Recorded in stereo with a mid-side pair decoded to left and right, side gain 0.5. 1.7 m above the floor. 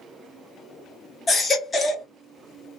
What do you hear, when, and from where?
1.3 s a baby crying: 30° left, 1.9 m